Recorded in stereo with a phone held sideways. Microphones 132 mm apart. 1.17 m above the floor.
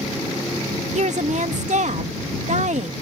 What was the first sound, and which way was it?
A woman speaking, 65° right (ahead or behind).